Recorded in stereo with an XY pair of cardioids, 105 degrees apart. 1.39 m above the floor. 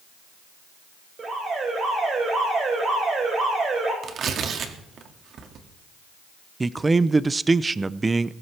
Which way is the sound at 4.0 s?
60° right.